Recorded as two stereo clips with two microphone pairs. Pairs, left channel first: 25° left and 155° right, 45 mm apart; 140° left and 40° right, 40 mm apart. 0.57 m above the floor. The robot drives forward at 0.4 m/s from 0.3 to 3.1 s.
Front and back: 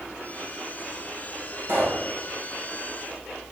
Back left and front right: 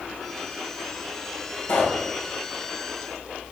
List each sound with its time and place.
1.7 s a pop: 165° left, 2.5 m